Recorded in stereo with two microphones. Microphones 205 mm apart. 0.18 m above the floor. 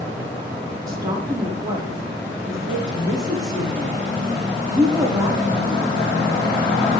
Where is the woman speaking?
20° right (ahead or behind), 7 m.